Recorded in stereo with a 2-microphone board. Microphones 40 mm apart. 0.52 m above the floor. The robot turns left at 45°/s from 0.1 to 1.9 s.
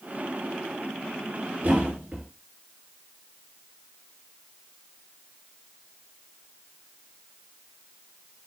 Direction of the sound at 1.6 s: 50° right (ahead or behind).